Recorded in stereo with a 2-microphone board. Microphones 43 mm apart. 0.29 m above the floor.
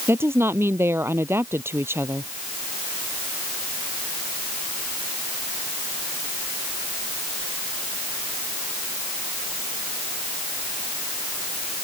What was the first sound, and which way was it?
A woman speaking, 70° right (ahead or behind).